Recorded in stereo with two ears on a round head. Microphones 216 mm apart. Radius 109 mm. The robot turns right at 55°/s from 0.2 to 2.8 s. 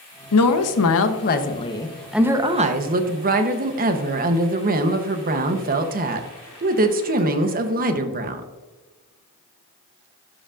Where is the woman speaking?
80° left, 0.9 m; by 8.4 s 140° right, 0.9 m.